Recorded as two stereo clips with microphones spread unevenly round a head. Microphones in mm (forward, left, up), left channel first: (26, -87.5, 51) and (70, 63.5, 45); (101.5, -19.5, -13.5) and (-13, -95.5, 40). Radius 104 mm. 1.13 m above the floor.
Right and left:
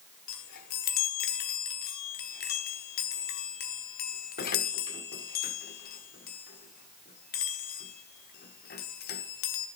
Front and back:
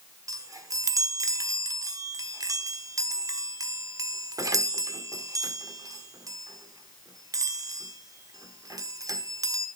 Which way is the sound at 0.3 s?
95° right.